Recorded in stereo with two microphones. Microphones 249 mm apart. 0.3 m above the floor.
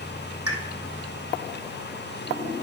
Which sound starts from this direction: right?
A pop, at 0.5 s.